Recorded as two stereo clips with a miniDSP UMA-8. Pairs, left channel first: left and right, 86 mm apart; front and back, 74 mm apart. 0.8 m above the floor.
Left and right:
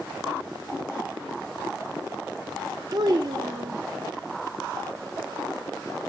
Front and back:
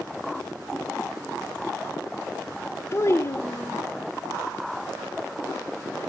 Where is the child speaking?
55° right, 1.9 m.